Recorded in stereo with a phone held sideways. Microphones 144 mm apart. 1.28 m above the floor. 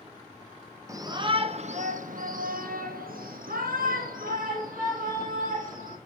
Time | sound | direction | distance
0.9 | a shout | 20° right (ahead or behind) | 0.9 m